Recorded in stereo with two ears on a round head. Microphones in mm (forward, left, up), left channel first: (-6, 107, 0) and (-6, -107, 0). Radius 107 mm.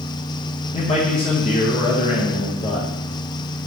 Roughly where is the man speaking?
Left.